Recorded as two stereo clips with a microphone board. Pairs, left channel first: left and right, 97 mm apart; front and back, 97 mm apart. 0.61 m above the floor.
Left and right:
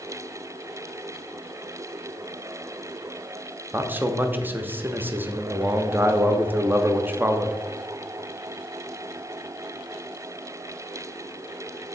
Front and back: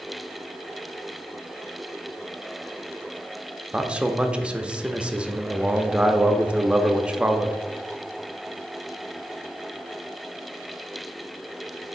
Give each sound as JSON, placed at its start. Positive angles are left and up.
{"t": 3.7, "sound": "a man speaking", "azimuth_deg": -120, "distance_m": 0.6}